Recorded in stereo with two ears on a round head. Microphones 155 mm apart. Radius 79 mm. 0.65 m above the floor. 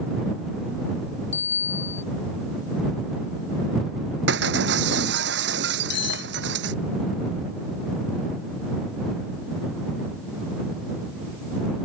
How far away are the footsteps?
No footsteps in this recording.